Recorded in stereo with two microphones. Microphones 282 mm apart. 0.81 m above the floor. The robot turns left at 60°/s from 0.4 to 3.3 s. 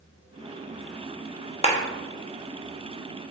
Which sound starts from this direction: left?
A clap, at 1.6 s.